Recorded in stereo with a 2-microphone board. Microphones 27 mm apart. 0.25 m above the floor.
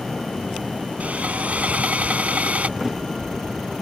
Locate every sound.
1.0 s sawing: 65° right (ahead or behind)
2.8 s a thud: 10° right (ahead or behind)